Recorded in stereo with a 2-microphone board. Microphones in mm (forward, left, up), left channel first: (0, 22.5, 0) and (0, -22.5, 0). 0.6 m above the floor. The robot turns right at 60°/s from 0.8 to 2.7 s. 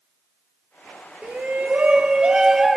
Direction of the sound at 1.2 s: 100° right.